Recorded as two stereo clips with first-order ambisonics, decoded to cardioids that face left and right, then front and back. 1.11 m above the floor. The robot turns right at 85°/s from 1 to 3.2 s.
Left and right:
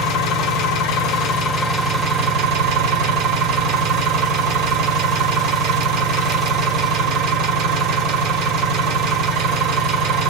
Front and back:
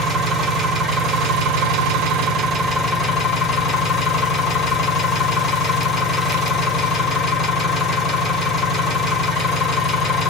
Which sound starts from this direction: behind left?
An engine running, at 0.0 s.